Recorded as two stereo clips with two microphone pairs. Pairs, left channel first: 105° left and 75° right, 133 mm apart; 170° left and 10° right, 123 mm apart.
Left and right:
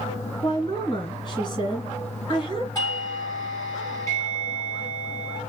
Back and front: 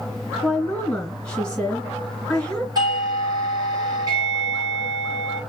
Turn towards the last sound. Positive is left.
turn(degrees=45)